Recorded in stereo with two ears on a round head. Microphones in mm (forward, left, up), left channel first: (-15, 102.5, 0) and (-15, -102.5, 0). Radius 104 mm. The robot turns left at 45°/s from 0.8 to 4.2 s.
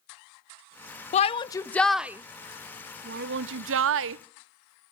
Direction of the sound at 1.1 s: 30° left (ahead or behind).